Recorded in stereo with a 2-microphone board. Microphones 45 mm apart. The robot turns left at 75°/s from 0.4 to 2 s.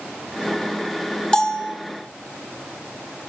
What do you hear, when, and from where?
1.3 s a bell: 20° left, 0.6 m; by 1.8 s 15° right, 0.6 m